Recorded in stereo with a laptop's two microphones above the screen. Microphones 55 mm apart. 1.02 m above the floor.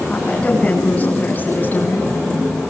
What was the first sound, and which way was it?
A woman speaking, 20° left (ahead or behind).